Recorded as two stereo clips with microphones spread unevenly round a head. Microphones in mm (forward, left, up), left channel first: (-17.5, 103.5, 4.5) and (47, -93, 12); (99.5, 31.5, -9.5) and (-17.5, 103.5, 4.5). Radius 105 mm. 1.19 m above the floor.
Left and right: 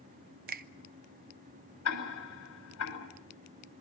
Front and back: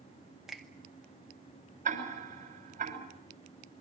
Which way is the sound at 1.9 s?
125° left.